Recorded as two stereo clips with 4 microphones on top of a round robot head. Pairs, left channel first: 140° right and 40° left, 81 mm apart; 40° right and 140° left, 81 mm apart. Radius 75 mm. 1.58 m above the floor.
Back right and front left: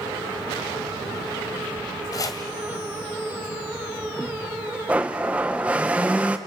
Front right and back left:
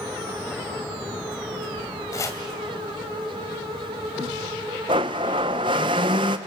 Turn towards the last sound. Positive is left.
turn(degrees=115)